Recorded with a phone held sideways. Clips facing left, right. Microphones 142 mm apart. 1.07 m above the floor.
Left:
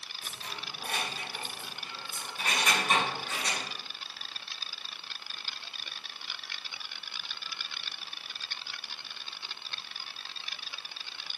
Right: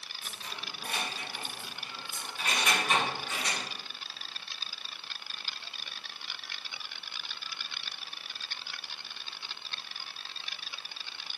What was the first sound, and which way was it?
Keys jangling, 60° left (ahead or behind).